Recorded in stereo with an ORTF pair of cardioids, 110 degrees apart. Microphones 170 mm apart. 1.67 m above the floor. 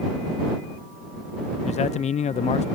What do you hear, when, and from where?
1.6 s a man speaking: 40° left